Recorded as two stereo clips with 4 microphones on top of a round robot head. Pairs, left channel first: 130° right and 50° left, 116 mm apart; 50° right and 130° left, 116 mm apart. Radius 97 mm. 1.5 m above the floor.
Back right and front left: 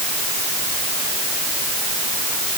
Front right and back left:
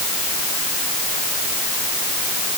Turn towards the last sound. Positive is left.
No sound to turn to.